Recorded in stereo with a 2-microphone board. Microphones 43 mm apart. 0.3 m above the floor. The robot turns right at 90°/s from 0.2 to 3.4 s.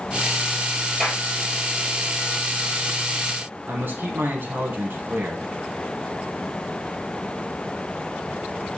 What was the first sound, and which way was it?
A clap, 5° left (ahead or behind).